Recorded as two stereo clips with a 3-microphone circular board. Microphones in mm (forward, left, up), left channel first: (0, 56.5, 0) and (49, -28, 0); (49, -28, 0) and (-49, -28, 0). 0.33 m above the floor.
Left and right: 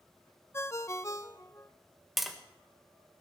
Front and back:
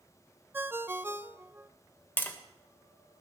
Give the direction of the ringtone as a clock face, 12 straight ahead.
7 o'clock.